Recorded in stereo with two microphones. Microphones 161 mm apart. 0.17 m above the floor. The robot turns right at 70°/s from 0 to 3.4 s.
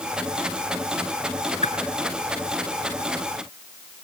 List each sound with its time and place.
1.6 s a whoosh: 45° left (ahead or behind), 1.3 m; by 1.7 s 50° left (ahead or behind), 1.3 m